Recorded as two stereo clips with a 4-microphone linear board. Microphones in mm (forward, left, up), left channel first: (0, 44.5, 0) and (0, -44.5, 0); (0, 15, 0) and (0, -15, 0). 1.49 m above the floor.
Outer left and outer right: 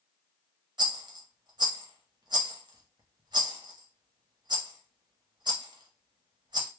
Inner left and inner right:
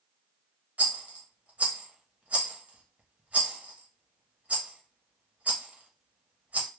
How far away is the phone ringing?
I don't hear a phone ringing.